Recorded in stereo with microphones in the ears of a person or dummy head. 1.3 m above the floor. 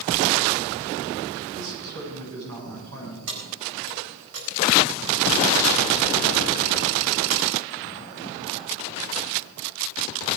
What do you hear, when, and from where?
1.5 s a man speaking: 80° right, 7.5 m; by 3.2 s 90° right, 7.5 m
3.3 s keys jangling: 70° right (ahead or behind), 4.5 m